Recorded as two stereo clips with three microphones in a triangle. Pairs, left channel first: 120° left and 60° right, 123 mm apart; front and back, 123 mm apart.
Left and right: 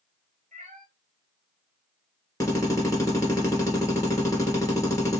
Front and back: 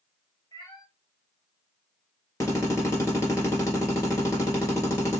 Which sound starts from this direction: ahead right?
A cat meowing, at 0.5 s.